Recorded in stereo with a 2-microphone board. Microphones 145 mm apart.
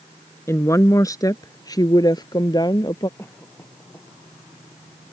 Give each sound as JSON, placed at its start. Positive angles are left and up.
{"t": 0.5, "sound": "a woman speaking", "side_deg": 20}
{"t": 3.2, "sound": "a cough", "side_deg": 15}